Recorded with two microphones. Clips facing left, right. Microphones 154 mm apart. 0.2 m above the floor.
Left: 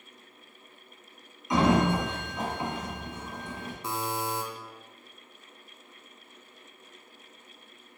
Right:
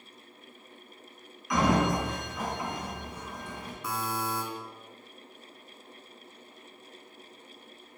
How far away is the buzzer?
About 0.6 m.